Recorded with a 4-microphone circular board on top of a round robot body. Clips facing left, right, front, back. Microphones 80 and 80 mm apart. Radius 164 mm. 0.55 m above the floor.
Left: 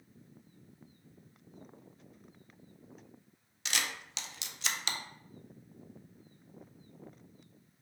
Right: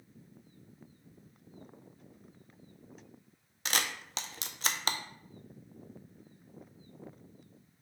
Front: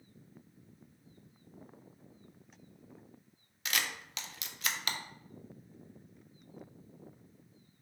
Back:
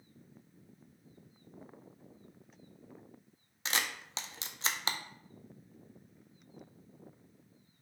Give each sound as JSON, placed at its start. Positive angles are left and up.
{"t": 3.6, "sound": "a camera shutter", "azimuth_deg": -125, "distance_m": 0.6}